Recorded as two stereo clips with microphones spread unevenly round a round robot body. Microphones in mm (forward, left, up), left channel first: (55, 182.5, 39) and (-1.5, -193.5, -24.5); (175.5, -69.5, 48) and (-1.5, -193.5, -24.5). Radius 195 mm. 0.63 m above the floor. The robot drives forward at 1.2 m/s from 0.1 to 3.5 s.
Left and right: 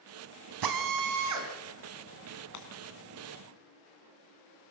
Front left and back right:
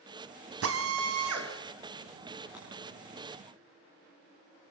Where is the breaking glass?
130° left, 3 m.